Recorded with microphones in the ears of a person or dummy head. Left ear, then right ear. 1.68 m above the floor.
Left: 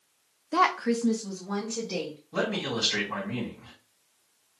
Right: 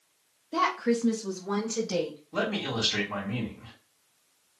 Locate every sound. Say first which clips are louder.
0.5 s a woman speaking: left 2 dB; 45° left (ahead or behind), 0.6 m; by 2.2 s 45° right (ahead or behind), 1.3 m
2.3 s a man speaking: left 1 dB; 25° left (ahead or behind), 2 m